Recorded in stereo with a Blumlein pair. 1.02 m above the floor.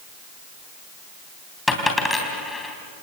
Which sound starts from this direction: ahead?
A dropped coin, at 1.7 s.